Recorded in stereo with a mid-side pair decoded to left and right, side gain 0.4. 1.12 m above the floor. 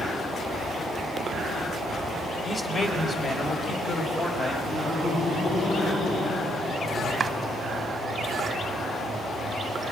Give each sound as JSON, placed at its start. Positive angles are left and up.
{"t": 2.4, "sound": "a man speaking", "azimuth_deg": 40, "distance_m": 4.5}
{"t": 4.7, "sound": "laughter", "azimuth_deg": 70, "distance_m": 10.0}
{"t": 7.2, "sound": "chopping", "azimuth_deg": -45, "distance_m": 0.7}